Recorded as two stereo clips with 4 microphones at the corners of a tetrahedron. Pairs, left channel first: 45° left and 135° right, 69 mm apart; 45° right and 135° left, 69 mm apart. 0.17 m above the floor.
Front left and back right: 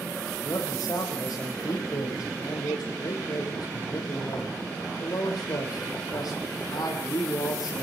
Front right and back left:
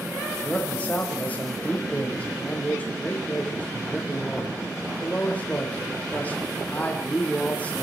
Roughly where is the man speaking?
Ahead left.